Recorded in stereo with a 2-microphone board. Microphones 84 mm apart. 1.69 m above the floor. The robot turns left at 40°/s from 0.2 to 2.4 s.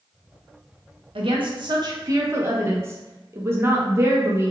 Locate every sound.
1.1 s a woman speaking: 100° right, 0.7 m; by 4.5 s 150° right, 0.7 m